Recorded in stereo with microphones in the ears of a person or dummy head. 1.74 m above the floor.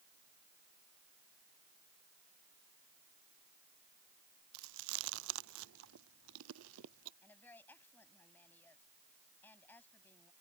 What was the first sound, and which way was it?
Chewing, 70° right (ahead or behind).